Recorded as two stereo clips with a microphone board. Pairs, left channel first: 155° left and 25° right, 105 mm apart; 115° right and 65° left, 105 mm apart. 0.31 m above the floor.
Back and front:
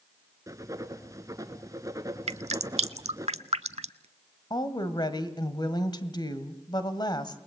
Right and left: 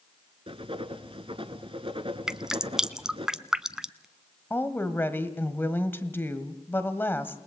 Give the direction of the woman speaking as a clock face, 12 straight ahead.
6 o'clock.